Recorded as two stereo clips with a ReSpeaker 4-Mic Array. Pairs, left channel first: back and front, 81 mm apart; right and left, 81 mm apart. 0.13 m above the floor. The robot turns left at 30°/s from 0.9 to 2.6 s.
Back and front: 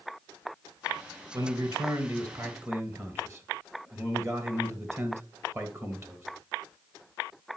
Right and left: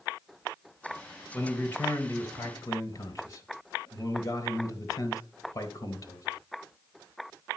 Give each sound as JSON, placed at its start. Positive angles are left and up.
{"t": 1.3, "sound": "a man speaking", "azimuth_deg": -15, "distance_m": 3.0}